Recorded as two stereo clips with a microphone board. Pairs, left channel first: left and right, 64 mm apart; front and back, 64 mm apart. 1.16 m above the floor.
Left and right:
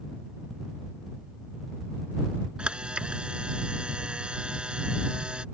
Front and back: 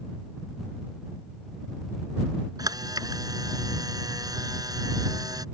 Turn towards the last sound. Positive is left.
turn(degrees=-165)